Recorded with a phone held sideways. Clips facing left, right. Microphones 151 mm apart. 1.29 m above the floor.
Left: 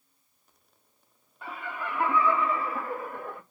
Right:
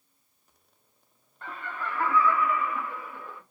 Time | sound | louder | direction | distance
1.4 | laughter | even | 10° left (ahead or behind) | 1.3 m